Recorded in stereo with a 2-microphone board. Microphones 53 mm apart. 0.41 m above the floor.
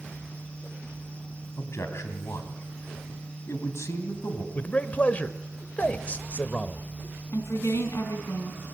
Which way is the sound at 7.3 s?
70° left (ahead or behind).